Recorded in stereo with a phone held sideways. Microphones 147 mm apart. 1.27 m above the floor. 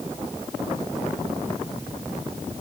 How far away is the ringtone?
I don't hear a ringtone.